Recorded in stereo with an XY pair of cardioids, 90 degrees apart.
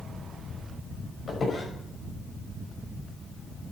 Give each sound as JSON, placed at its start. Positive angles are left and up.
{"t": 1.3, "sound": "a squeak", "azimuth_deg": 45, "distance_m": 6.0}